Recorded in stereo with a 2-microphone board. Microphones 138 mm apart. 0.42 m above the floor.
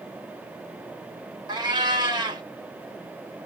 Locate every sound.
1.5 s a cat meowing: 30° right (ahead or behind), 0.7 m